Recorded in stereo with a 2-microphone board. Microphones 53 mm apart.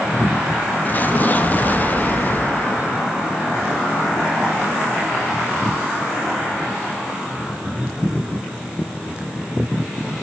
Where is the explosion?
35° left (ahead or behind), 0.5 m.